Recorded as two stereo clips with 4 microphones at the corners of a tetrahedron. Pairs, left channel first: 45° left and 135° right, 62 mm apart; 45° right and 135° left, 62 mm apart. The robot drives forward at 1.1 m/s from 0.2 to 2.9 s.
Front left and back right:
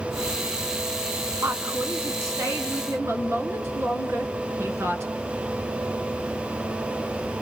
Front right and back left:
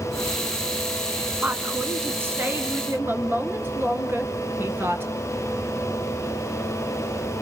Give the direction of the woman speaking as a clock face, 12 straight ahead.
6 o'clock.